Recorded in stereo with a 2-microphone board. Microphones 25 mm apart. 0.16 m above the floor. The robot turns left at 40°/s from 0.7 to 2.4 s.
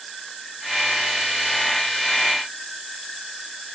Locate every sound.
Only background noise.